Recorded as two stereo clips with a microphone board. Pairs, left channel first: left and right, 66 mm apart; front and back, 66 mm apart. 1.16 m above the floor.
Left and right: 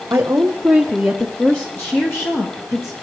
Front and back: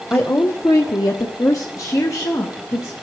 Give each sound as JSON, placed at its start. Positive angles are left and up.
{"t": 0.1, "sound": "a woman speaking", "azimuth_deg": -55, "distance_m": 0.8}